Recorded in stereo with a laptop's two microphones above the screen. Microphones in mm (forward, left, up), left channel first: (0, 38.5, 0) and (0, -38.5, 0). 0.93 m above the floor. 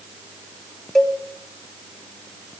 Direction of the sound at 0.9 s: 5° left (ahead or behind).